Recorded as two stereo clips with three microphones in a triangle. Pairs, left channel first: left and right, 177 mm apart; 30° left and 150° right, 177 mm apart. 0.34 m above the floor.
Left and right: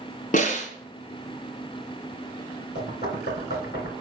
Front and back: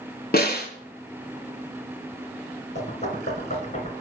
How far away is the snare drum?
About 2 m.